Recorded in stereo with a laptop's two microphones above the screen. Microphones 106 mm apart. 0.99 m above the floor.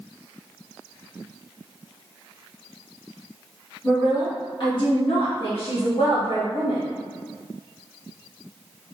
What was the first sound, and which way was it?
A woman speaking, 35° left (ahead or behind).